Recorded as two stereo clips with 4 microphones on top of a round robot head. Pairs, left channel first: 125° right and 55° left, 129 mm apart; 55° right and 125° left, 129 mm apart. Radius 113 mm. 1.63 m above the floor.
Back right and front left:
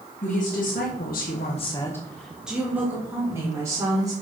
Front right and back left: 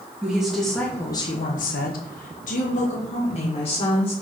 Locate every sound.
0.2 s a woman speaking: 150° right, 2 m; by 4.1 s 10° right, 4 m